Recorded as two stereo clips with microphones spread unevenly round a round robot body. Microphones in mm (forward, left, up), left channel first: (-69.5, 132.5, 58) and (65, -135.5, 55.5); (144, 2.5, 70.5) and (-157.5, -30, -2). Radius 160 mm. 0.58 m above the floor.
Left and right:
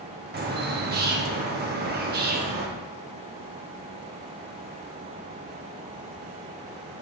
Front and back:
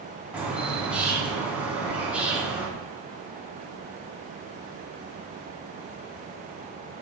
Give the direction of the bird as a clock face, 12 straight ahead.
3 o'clock.